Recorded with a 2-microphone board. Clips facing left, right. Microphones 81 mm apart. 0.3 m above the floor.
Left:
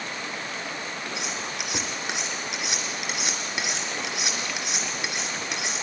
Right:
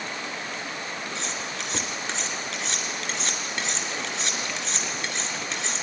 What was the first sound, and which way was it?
Cutlery clinking, 15° left (ahead or behind).